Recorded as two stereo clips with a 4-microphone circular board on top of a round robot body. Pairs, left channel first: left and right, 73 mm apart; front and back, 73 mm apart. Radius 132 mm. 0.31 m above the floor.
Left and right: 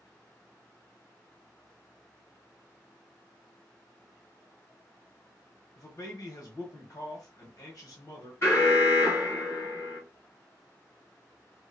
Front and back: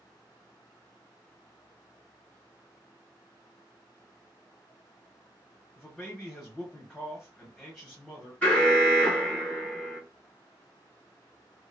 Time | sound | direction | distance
5.8 | a man speaking | 75° left | 1.3 m
8.4 | an alarm | 60° left | 2.5 m